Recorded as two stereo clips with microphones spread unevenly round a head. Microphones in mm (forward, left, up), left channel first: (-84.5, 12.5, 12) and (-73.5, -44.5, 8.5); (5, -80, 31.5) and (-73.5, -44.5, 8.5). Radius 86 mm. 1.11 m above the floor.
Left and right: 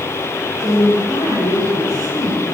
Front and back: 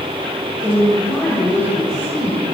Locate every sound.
0.6 s a woman speaking: 70° left, 7 m; by 2.5 s 60° left, 7 m